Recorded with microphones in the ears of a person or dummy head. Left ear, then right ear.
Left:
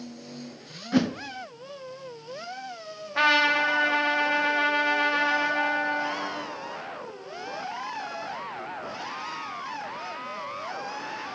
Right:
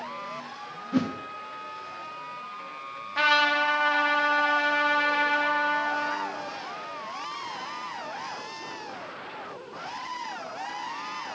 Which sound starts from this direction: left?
A whoosh, at 0.9 s.